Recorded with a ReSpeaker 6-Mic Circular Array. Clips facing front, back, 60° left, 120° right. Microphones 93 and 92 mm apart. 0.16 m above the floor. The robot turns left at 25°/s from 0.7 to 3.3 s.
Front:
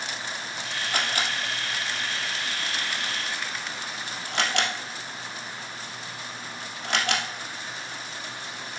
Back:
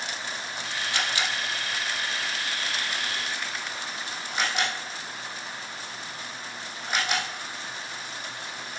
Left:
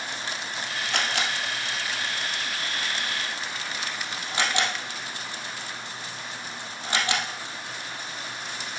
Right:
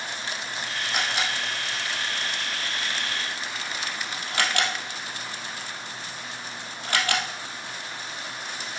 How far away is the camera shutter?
About 2.5 m.